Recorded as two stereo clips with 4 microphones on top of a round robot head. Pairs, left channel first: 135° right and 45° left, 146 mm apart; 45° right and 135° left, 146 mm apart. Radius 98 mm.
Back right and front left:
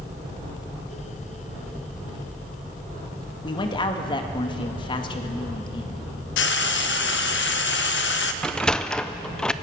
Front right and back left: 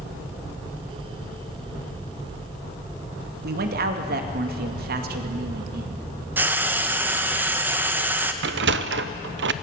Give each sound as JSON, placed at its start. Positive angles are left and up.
{"t": 3.4, "sound": "a man speaking", "azimuth_deg": 160, "distance_m": 2.0}
{"t": 6.4, "sound": "frying", "azimuth_deg": -145, "distance_m": 1.0}
{"t": 8.4, "sound": "a sliding door", "azimuth_deg": 140, "distance_m": 0.6}